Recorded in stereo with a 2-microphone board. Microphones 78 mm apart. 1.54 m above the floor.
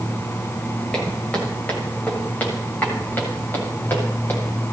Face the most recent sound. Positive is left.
turn(degrees=30)  # may be behind; listen again after turning